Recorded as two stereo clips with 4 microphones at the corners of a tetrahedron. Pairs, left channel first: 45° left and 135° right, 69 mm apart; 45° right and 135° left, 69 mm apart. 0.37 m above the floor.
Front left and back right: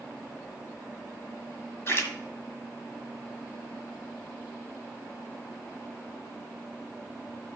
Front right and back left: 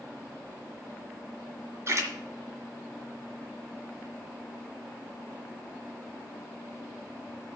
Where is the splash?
90° left, 1.8 m.